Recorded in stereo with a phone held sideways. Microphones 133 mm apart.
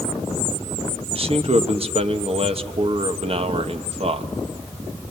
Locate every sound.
1.1 s a man speaking: 45° right (ahead or behind), 1.0 m